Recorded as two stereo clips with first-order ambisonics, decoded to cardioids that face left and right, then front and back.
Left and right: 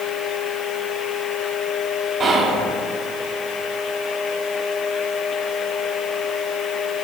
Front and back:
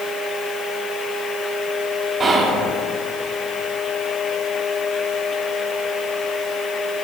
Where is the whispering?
130° right, 0.7 m.